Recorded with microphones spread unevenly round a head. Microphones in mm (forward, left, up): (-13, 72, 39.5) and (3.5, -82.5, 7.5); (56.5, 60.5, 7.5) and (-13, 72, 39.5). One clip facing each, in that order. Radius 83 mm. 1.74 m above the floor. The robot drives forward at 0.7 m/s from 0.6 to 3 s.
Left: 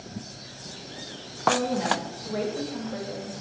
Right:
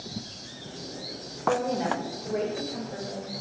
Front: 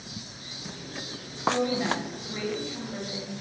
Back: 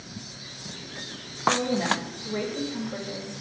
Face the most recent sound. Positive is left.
turn(degrees=-155)